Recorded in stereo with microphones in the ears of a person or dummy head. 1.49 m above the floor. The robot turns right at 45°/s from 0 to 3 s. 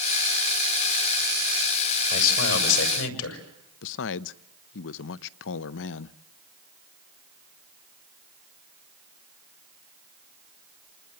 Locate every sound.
2.1 s a man speaking: 40° left, 6 m; by 3.4 s 80° left, 6 m
3.8 s a man speaking: 70° left (ahead or behind), 0.7 m